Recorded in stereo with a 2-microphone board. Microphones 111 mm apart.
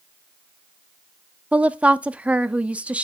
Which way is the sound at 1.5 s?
10° right (ahead or behind).